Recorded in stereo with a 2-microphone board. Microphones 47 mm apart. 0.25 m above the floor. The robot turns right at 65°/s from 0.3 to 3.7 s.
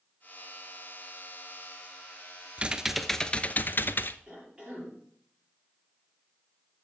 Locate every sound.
2.6 s typing on a keyboard: 25° right, 0.5 m; by 4.2 s 45° left, 0.5 m
4.3 s a cough: 15° right (ahead or behind), 6.5 m